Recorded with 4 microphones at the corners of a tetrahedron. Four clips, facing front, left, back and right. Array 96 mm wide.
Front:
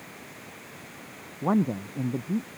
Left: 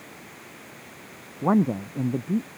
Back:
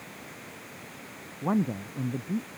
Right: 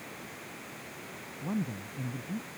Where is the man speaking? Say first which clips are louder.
Left 13 dB, front 3 dB; 70° left.